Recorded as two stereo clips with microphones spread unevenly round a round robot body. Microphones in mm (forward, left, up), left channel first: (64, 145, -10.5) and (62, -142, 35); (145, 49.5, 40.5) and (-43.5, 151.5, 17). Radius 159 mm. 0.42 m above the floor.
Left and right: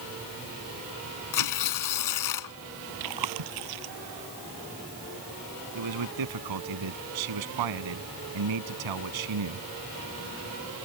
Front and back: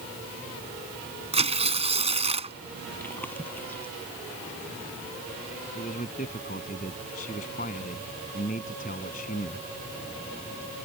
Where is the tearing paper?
90° left.